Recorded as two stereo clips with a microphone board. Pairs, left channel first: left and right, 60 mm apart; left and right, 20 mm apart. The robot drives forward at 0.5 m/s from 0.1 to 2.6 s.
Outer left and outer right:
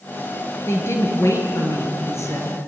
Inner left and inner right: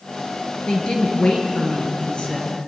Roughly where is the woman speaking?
Left.